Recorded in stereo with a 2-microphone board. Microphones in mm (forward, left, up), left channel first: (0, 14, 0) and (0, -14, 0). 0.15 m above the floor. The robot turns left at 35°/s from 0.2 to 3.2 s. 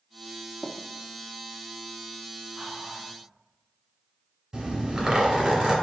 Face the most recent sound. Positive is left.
turn(degrees=-20)  # may be behind; listen again after turning